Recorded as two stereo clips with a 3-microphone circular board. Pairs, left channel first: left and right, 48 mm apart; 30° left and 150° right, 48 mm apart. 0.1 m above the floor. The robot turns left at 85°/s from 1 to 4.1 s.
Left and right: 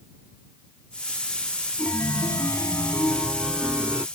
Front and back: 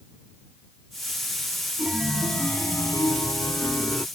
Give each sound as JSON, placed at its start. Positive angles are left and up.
{"t": 1.8, "sound": "a chime", "azimuth_deg": 150}